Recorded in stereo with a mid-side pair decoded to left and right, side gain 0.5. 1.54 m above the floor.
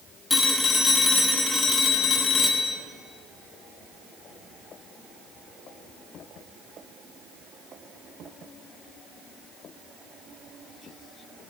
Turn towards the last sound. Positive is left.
turn(degrees=25)